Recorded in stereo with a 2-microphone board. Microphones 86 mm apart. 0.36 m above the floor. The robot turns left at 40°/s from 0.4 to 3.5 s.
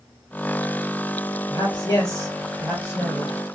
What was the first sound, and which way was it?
A man speaking, 100° left.